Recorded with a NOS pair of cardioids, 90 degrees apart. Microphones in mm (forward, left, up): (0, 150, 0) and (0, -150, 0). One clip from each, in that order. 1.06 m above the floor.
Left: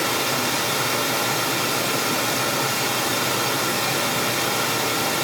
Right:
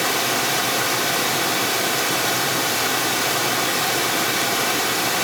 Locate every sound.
0.0 s running water: 50° right, 1.4 m